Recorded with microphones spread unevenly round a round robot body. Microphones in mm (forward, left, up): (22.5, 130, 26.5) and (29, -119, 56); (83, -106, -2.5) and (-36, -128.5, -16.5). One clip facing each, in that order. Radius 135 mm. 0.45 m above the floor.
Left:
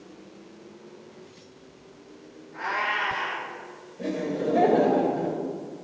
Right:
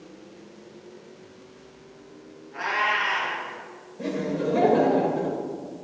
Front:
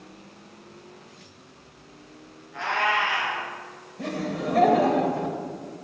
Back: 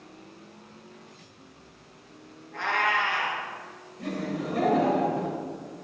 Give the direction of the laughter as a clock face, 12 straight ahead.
12 o'clock.